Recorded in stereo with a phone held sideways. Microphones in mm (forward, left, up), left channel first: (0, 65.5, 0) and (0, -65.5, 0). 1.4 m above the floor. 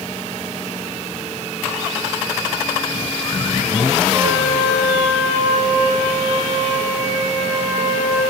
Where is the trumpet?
15° right (ahead or behind), 10 m.